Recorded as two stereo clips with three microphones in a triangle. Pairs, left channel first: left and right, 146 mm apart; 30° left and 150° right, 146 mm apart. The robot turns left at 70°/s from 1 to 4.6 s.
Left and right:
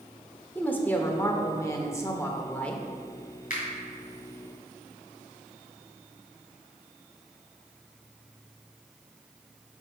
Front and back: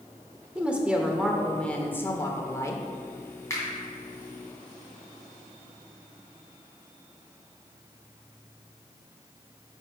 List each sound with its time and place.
0.6 s a woman speaking: 140° left, 0.8 m; by 2.8 s 15° left, 0.8 m
3.5 s a finger snap: 100° left, 2.5 m; by 3.6 s 90° left, 2.5 m